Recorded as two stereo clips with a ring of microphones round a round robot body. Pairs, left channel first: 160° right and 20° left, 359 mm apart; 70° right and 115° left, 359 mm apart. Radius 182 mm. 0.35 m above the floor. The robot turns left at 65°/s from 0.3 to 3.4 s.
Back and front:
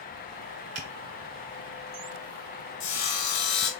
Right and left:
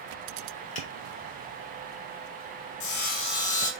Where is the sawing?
95° right, 2.5 m; by 3.7 s 135° right, 2.5 m.